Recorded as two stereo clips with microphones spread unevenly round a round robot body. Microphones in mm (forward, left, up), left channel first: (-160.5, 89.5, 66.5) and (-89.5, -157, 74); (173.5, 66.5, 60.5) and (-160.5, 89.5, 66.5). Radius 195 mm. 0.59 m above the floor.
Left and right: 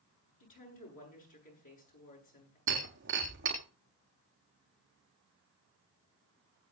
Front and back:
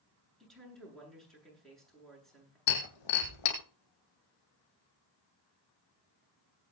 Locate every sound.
0.4 s a woman speaking: 85° left, 9 m
2.7 s breaking glass: 15° right, 3 m